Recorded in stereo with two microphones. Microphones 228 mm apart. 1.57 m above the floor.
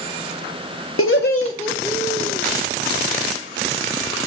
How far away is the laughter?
About 0.6 m.